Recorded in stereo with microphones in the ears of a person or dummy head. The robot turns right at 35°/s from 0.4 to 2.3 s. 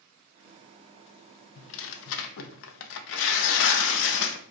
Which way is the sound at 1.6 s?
65° left (ahead or behind).